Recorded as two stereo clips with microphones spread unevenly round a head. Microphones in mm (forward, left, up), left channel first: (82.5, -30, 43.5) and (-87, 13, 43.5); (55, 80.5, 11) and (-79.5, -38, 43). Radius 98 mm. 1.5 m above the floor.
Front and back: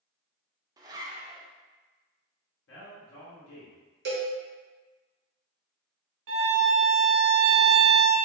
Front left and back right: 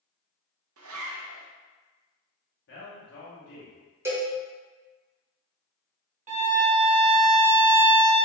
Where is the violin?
170° left, 0.9 m.